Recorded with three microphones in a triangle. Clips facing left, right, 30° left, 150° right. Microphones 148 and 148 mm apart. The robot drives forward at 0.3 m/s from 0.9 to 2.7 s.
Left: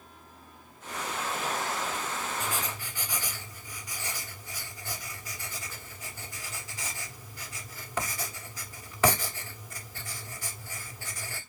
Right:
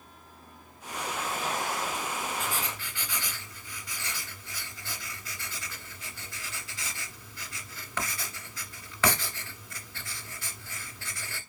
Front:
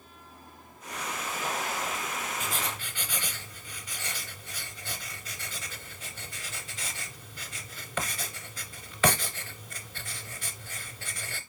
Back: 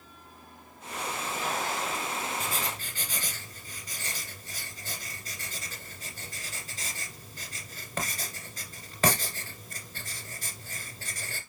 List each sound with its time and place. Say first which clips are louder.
2.4 s writing: even, even; 160° left, 1.8 m